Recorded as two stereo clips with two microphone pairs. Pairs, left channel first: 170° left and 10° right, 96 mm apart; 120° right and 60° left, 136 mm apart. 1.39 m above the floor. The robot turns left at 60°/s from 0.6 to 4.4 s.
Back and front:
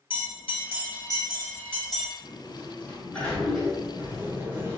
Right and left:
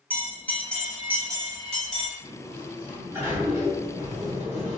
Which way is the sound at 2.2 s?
155° left.